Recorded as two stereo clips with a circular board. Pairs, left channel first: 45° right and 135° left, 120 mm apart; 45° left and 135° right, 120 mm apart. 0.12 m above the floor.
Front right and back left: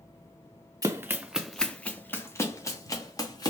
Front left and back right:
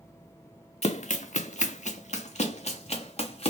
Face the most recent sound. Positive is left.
turn(degrees=15)